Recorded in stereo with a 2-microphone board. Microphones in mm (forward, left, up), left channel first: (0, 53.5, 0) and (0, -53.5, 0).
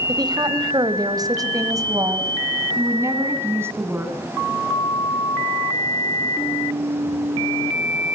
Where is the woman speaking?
45° right (ahead or behind), 1.7 m; by 4.2 s 20° right (ahead or behind), 3.5 m.